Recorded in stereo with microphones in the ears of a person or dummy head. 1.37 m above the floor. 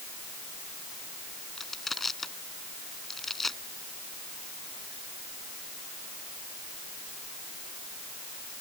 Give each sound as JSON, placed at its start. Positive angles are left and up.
{"t": 1.6, "sound": "crushing", "side_deg": 0}